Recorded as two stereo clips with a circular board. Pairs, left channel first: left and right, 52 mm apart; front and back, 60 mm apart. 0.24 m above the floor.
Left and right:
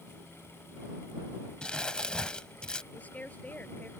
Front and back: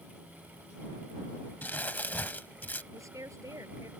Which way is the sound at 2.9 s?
150° left.